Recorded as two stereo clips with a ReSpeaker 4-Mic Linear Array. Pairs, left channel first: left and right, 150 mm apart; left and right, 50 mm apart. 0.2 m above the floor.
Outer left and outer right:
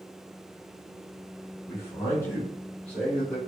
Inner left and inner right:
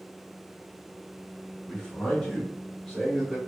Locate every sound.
1.7 s a man speaking: 20° left (ahead or behind), 1.0 m; by 3.4 s 5° left (ahead or behind), 1.4 m